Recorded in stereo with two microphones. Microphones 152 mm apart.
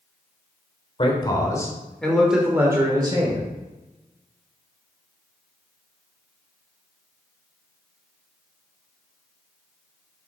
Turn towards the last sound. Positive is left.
turn(degrees=-35)  # may be behind; listen again after turning